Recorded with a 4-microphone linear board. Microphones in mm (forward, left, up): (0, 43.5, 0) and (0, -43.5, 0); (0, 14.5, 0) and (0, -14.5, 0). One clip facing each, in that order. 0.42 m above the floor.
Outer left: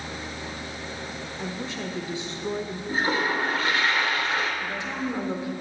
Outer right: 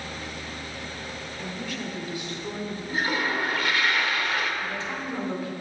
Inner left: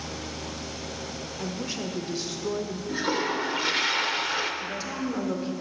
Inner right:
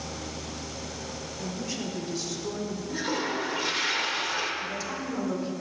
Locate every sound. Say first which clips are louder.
1.4 s a woman speaking: outer left 2 dB, inner left 2 dB; 25° left (ahead or behind), 0.8 m
2.9 s a toilet flushing: outer left 2 dB, inner left 3 dB; 30° left (ahead or behind), 0.9 m
4.6 s a woman speaking: outer left 2 dB, inner left 1 dB; 20° left (ahead or behind), 0.9 m